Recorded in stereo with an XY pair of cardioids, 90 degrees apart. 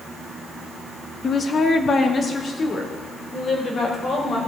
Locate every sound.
1.2 s a woman speaking: 45° left, 1.1 m; by 4.4 s 50° left, 5 m